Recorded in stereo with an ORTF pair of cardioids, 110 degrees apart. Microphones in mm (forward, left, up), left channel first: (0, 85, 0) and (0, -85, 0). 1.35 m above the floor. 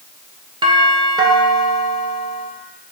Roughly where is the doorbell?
Ahead right.